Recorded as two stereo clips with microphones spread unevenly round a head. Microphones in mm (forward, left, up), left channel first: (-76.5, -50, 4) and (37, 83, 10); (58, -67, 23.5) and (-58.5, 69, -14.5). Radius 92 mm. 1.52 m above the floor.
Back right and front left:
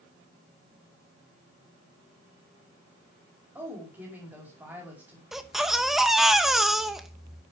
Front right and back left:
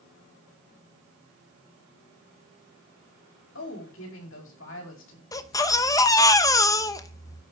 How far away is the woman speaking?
About 5 m.